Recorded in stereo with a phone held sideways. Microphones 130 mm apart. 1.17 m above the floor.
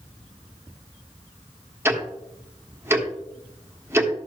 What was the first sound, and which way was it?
Ticking, 20° right (ahead or behind).